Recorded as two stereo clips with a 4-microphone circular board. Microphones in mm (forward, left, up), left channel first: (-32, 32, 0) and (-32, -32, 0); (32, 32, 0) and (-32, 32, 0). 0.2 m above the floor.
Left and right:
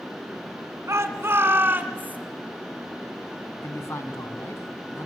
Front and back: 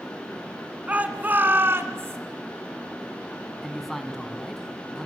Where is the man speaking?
85° left, 2 m.